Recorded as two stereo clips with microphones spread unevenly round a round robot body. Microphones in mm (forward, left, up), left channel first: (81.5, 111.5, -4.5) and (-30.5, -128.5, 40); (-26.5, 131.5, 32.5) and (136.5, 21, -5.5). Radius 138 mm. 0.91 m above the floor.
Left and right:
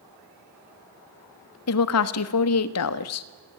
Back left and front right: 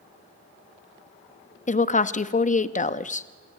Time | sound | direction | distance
1.7 | a woman speaking | 90° left | 1.1 m